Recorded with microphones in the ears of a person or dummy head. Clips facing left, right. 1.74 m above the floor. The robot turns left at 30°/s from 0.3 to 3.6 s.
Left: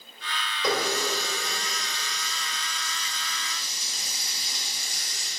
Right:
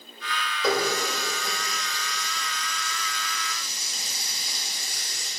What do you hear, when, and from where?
0.6 s a running tap: 5° right (ahead or behind), 1.8 m; by 5.3 s 60° right (ahead or behind), 1.8 m